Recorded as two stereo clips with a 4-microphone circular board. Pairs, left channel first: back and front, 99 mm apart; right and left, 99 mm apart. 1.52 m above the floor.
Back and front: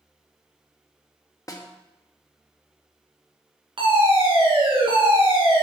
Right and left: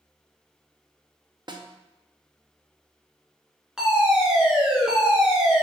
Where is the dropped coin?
I don't hear a dropped coin.